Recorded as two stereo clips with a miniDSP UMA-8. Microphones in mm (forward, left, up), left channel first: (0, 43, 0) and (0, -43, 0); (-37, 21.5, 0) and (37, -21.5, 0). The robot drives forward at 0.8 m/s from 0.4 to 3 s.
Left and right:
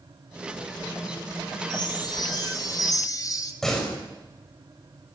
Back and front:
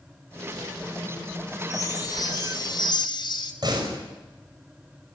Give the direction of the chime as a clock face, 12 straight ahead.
8 o'clock.